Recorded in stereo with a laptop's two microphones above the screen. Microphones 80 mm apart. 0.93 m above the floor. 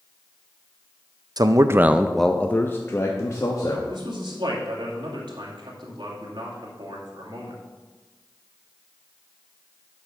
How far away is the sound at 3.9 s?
About 2 m.